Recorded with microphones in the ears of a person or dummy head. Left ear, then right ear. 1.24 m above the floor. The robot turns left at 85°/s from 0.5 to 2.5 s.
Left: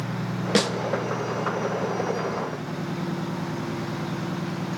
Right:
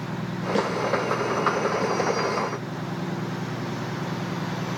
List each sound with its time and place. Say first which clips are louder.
0.6 s a snare drum: left 3 dB; 50° left (ahead or behind), 0.9 m; by 0.7 s 40° left (ahead or behind), 0.9 m